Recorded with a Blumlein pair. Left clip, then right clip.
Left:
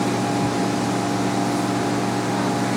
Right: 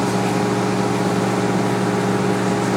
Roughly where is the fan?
Ahead right.